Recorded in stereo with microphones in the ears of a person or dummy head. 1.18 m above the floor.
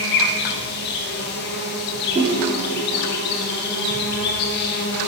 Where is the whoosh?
25° right (ahead or behind), 2 m.